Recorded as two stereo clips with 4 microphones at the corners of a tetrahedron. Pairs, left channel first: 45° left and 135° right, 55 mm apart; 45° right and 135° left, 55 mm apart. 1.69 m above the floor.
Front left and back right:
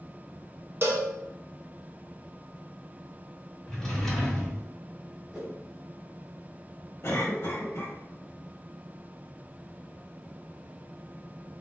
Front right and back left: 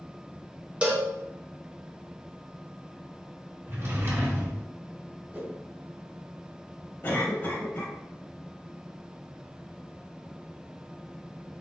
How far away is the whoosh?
About 1.7 m.